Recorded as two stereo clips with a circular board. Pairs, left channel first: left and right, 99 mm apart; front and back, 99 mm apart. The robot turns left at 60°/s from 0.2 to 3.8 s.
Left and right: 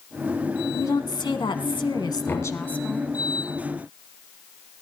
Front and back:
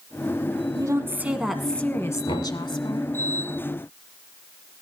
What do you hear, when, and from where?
0.8 s a woman speaking: 140° left, 1.7 m; by 3.1 s straight ahead, 1.7 m
2.3 s knocking: 25° left, 4 m; by 2.5 s 5° left, 4 m